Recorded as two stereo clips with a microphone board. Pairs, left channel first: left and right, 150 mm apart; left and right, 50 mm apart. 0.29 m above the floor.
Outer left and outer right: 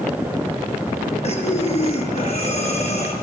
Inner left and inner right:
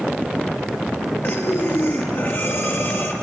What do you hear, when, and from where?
1.2 s breathing: 50° left (ahead or behind), 6 m